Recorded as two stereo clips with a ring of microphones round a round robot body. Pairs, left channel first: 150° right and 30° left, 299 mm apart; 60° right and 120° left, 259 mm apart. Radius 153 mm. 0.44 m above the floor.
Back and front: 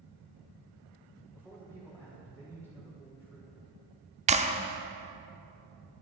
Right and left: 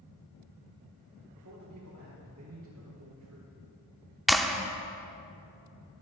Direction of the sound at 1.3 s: 130° left.